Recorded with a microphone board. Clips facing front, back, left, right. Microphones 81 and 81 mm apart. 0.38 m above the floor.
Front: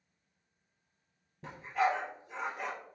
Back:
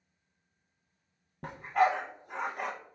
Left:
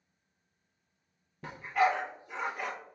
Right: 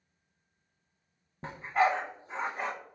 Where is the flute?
No flute in this recording.